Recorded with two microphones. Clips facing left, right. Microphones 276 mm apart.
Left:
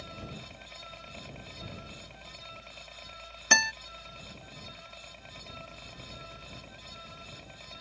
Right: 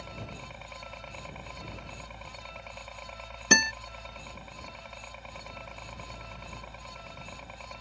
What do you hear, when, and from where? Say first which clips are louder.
0.0 s a helicopter: right 1 dB; 65° right (ahead or behind); by 7.8 s 70° right (ahead or behind)
3.5 s a guitar: right 7 dB; 45° right (ahead or behind)